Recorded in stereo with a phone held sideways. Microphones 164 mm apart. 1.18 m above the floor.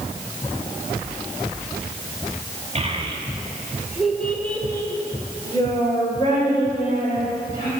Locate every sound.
2.8 s a child speaking: 40° right (ahead or behind), 1.3 m; by 7.7 s 35° left (ahead or behind), 4 m